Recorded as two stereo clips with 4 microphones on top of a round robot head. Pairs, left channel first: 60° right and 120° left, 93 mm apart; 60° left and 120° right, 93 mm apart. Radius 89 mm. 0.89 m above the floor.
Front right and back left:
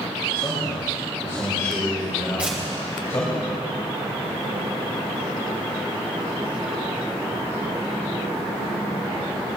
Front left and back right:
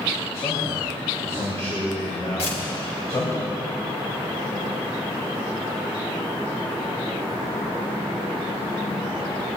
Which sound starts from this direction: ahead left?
Tearing paper, at 2.4 s.